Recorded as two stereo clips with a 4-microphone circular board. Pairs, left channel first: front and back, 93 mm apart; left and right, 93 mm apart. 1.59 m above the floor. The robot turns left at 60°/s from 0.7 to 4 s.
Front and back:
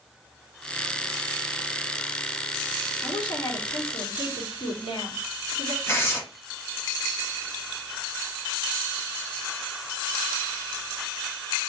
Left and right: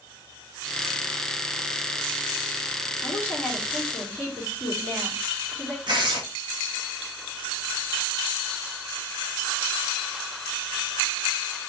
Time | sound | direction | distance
3.0 | a woman speaking | 40° left | 2.5 m
5.9 | tearing paper | 60° right | 1.6 m